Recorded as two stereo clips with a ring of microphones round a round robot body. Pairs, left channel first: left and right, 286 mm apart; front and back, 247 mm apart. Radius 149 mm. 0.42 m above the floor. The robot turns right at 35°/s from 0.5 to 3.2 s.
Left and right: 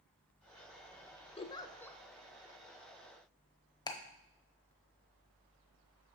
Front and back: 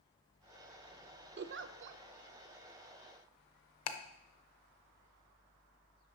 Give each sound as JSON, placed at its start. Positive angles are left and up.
{"t": 1.4, "sound": "a giggle", "azimuth_deg": 155, "distance_m": 0.5}
{"t": 3.9, "sound": "ticking", "azimuth_deg": 15, "distance_m": 0.7}